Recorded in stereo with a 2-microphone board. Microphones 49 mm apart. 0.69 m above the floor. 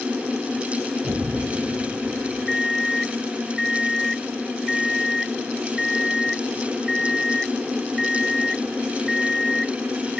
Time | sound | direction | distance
1.0 | an explosion | 85° right | ?
2.5 | an alarm clock | centre (ahead or behind) | ?